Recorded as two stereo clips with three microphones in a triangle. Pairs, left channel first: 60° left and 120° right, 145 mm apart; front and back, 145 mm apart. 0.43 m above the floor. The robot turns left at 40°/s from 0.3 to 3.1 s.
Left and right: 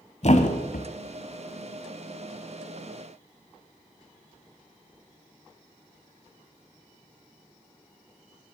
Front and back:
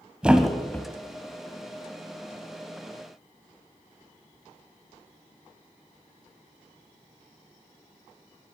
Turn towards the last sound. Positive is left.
turn(degrees=-15)